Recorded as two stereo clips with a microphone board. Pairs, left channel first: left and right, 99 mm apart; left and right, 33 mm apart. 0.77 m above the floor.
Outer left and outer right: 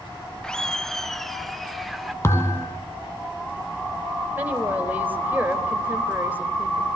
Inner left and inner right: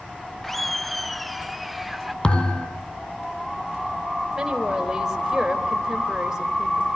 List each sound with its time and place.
0.4 s laughter: 10° left (ahead or behind), 0.8 m; by 2.1 s centre (ahead or behind), 1.9 m
2.2 s a thud: 30° left (ahead or behind), 2.5 m
4.3 s a woman speaking: 20° right (ahead or behind), 3.5 m